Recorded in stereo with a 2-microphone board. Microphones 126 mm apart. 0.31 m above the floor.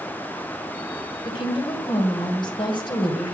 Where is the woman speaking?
40° left (ahead or behind), 1.7 m.